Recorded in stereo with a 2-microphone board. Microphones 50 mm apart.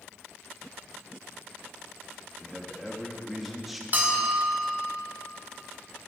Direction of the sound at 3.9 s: 40° right (ahead or behind).